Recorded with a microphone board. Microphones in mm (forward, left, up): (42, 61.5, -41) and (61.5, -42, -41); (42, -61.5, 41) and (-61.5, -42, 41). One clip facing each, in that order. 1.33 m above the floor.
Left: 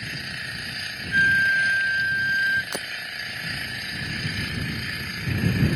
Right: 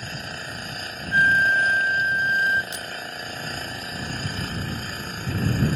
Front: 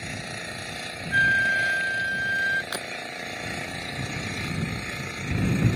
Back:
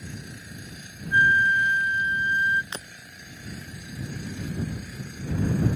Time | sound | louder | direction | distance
0.0 | an engine running | right 1 dB, front 5 dB | 20° right | ?
1.1 | a flute | right 2 dB, back 3 dB | 135° right | ?
2.7 | breaking glass | left 2 dB, front 5 dB | 65° left | ?